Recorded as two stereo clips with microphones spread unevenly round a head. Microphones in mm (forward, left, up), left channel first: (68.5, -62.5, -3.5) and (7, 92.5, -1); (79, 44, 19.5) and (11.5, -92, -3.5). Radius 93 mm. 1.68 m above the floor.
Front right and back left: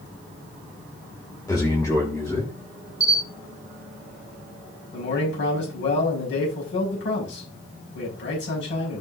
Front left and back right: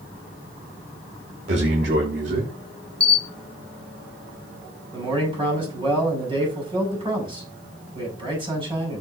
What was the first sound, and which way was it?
A man speaking, 140° right.